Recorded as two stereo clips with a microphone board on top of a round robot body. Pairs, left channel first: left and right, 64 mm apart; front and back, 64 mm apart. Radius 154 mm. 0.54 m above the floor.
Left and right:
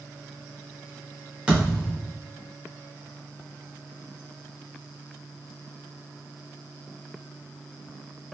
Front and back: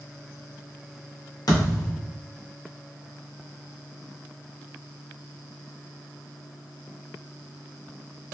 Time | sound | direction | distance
1.5 | a thud | 15° right | 1.2 m